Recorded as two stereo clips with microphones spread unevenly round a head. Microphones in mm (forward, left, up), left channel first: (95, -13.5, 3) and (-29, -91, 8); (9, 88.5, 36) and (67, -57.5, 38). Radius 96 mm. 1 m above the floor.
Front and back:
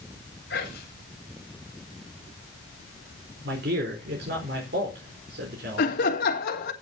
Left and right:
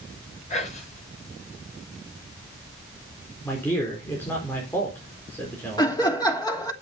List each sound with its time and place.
0.5 s whispering: 65° left, 5 m
3.4 s a man speaking: 170° right, 4 m
5.8 s laughter: 50° left, 2.5 m